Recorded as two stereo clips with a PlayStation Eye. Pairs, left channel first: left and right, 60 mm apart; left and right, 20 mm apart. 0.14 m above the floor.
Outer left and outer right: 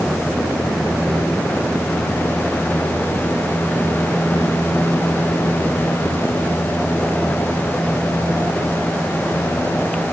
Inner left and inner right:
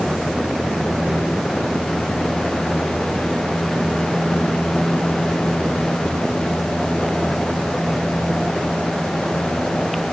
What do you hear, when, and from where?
Only background noise.